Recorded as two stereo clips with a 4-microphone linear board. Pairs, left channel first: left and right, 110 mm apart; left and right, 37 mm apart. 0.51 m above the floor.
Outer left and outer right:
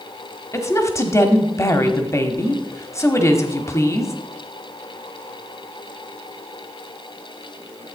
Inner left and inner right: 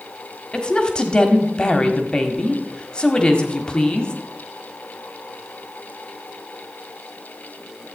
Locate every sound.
0.5 s a woman speaking: 25° left (ahead or behind), 1.3 m